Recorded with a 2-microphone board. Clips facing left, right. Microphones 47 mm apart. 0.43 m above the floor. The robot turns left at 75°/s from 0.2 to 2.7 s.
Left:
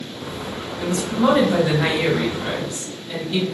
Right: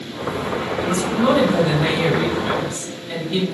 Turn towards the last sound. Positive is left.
turn(degrees=-45)